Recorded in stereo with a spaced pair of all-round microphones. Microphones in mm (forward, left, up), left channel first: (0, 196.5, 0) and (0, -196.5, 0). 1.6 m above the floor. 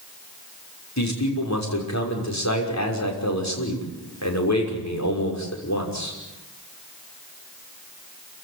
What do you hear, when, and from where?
1.0 s a man speaking: 45° left (ahead or behind), 5.5 m